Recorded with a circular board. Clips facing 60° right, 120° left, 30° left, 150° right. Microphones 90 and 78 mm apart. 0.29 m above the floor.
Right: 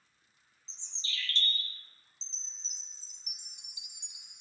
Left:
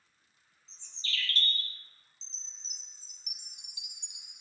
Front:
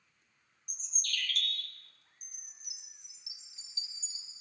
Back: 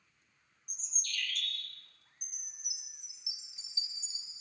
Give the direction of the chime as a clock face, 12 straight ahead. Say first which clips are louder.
Right 2 dB, back 3 dB; 3 o'clock.